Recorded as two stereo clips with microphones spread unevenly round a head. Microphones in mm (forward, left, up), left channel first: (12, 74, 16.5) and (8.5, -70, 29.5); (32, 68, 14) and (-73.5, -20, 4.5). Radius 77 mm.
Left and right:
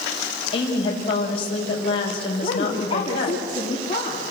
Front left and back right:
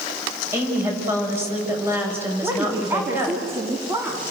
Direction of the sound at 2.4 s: 145° left.